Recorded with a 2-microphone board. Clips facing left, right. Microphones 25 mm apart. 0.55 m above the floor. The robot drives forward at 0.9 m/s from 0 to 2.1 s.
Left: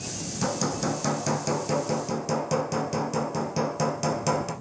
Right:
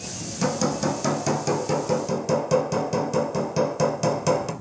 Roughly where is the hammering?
Centre.